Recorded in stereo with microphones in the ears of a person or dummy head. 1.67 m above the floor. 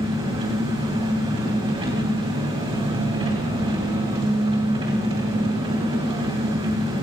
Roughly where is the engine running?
Right.